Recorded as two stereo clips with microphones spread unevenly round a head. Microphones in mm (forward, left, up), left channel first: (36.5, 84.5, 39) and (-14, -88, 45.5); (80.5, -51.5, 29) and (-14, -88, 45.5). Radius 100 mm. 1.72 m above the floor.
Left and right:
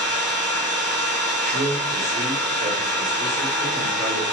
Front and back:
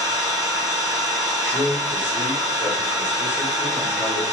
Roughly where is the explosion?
I don't hear an explosion.